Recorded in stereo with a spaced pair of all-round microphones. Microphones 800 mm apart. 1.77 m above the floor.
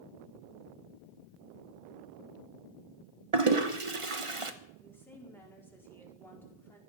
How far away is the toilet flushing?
About 1.2 m.